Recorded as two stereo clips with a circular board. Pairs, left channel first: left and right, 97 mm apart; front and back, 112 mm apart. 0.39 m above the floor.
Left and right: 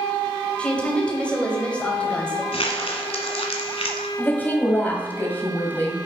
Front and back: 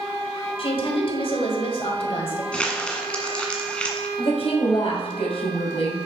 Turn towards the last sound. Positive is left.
turn(degrees=20)